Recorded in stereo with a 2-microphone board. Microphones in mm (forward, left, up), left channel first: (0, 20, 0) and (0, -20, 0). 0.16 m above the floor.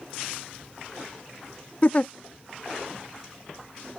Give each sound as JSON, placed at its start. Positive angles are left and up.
{"t": 1.8, "sound": "a giggle", "side_deg": 30}